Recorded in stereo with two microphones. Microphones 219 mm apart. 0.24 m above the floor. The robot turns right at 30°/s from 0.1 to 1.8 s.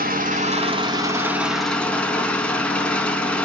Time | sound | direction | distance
0.0 | an engine running | 45° right | 0.8 m